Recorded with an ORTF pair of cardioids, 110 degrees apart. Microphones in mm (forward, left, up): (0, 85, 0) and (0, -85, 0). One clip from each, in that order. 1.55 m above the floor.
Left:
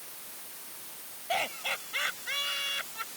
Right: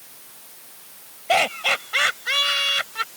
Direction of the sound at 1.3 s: 65° right.